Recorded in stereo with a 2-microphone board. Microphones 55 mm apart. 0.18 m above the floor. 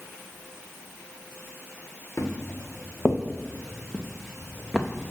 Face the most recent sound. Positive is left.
turn(degrees=-20)  # may be behind; listen again after turning